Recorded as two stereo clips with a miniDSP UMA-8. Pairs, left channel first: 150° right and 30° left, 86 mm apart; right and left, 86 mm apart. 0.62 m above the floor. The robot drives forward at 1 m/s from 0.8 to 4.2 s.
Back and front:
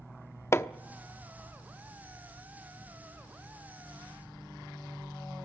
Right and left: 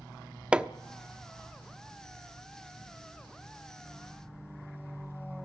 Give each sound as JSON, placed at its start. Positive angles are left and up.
{"t": 0.5, "sound": "hammering", "azimuth_deg": 165, "distance_m": 0.8}